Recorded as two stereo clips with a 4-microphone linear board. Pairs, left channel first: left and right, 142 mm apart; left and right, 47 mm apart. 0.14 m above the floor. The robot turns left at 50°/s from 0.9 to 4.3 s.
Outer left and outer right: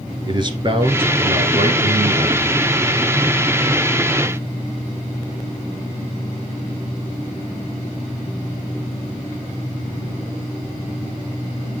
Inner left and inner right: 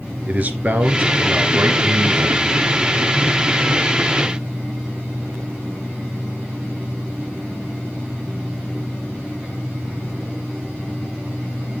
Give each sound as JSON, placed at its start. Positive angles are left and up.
{"t": 0.3, "sound": "a man speaking", "azimuth_deg": -40, "distance_m": 2.5}